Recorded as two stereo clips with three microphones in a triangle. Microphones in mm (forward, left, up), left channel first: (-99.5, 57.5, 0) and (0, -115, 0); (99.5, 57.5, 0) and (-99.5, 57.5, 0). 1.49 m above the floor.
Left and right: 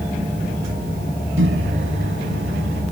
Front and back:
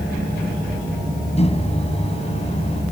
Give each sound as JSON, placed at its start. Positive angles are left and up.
{"t": 1.4, "sound": "a microwave", "azimuth_deg": -60}